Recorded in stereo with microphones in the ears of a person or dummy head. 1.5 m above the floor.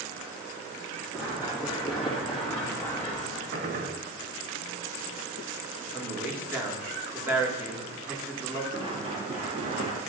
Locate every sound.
1.1 s running footsteps: 15° right (ahead or behind), 3.5 m; by 3.4 s 20° left (ahead or behind), 3 m
3.5 s a gunshot: 50° right (ahead or behind), 1.0 m
5.9 s a man speaking: 10° right (ahead or behind), 2.0 m
8.7 s running footsteps: 25° right (ahead or behind), 2 m; by 10.0 s 45° right (ahead or behind), 2.5 m